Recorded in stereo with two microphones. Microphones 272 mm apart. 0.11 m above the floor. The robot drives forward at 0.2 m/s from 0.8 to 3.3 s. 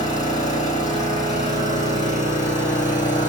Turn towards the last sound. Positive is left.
turn(degrees=30)  # may be behind; listen again after turning